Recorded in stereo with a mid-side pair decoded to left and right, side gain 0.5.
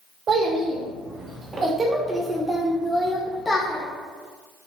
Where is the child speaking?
55° right, 1.7 m; by 3.8 s 25° left, 1.2 m.